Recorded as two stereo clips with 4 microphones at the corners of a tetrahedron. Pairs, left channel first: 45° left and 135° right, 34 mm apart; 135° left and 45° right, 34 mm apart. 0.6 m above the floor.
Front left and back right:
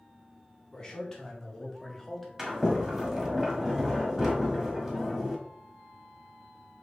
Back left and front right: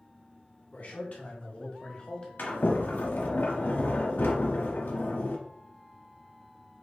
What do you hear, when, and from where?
0.7 s a man speaking: 110° left, 1.8 m; by 2.3 s 130° left, 1.1 m
2.4 s a sliding door: 150° left, 0.9 m